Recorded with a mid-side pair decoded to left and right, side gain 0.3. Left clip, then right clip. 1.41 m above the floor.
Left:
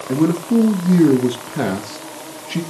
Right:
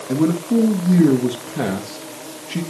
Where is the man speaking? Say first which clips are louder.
Left 1 dB; 15° left, 1.9 m.